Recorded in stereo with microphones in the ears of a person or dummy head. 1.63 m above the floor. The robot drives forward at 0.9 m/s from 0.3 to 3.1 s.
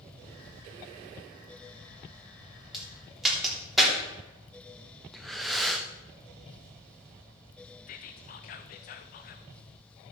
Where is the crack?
Centre (ahead or behind), 4 m.